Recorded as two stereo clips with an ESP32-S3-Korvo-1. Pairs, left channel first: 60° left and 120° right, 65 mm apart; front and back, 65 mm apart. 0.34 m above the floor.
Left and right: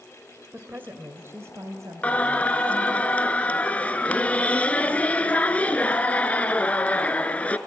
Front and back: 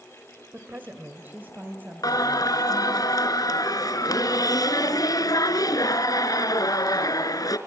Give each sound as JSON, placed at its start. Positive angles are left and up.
{"t": 0.5, "sound": "a woman speaking", "azimuth_deg": -160, "distance_m": 1.4}
{"t": 2.0, "sound": "singing", "azimuth_deg": -10, "distance_m": 1.3}